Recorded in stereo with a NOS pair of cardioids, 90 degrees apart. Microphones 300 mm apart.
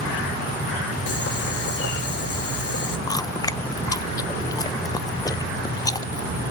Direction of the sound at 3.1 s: 10° left.